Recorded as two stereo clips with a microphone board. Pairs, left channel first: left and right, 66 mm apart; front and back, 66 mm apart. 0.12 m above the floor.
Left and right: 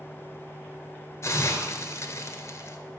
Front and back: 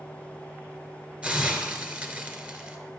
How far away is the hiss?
About 2.5 m.